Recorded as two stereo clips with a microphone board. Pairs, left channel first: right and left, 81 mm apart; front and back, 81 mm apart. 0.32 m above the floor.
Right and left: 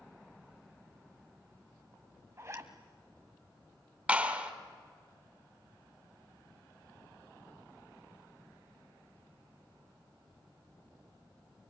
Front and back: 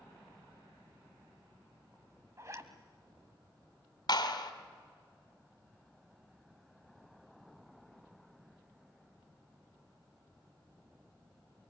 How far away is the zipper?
About 1.7 m.